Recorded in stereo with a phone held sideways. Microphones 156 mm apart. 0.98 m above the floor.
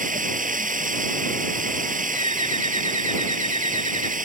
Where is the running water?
60° right (ahead or behind).